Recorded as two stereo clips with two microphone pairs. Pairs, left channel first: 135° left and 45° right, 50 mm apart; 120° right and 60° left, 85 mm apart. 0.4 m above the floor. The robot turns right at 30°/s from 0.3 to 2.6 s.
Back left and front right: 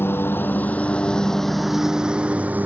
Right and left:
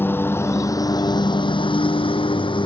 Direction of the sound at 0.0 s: 175° left.